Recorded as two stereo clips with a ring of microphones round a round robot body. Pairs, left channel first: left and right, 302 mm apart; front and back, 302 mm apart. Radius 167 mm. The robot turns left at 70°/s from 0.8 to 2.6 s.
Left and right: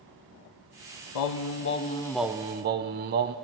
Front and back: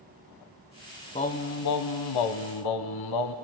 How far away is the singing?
About 0.6 m.